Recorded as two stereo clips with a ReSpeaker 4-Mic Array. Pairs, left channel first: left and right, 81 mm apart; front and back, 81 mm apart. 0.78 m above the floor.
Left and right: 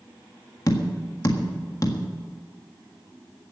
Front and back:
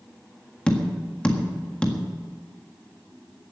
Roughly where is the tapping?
Left.